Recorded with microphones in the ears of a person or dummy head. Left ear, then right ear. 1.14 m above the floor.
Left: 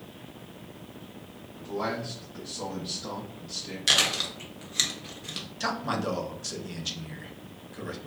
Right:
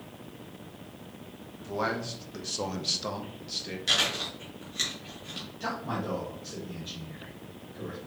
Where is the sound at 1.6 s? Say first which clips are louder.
Right 1 dB; 60° right (ahead or behind), 0.9 m; by 3.8 s 20° right (ahead or behind), 0.8 m.